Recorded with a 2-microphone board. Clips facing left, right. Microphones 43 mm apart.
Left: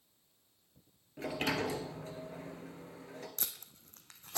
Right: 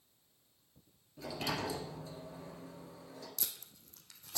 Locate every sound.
1.2 s a sliding door: 45° left (ahead or behind), 1.4 m
3.4 s tape being pulled: 45° left (ahead or behind), 1.0 m